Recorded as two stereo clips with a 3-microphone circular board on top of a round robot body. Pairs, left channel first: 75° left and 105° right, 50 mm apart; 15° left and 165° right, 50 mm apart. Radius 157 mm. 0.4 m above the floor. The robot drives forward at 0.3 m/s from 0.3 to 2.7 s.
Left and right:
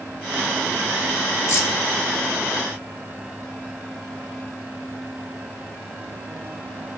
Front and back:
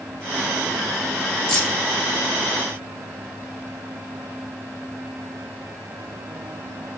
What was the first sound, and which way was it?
Keys jangling, 90° left.